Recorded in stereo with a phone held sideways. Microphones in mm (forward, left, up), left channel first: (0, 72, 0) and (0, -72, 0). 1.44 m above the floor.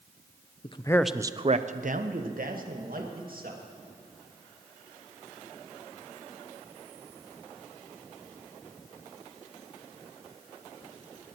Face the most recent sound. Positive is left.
turn(degrees=-85)